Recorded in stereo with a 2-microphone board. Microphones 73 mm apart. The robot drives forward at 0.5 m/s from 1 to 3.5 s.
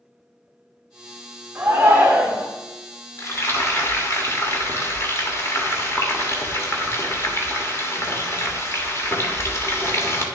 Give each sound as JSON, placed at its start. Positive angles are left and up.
{"t": 1.6, "sound": "a shout", "side_deg": -25, "distance_m": 1.6}
{"t": 3.2, "sound": "frying", "side_deg": 40, "distance_m": 1.4}